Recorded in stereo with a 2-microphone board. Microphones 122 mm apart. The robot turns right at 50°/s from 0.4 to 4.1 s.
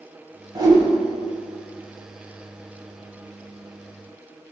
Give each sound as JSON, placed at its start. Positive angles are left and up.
{"t": 0.6, "sound": "a whoosh", "side_deg": -35, "distance_m": 1.1}